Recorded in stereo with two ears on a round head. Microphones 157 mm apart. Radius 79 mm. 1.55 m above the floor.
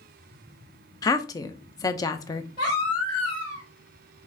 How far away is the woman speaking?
About 0.5 m.